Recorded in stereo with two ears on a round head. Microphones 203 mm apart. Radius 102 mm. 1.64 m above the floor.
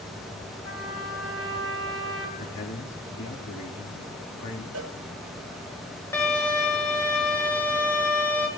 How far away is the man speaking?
About 3.5 m.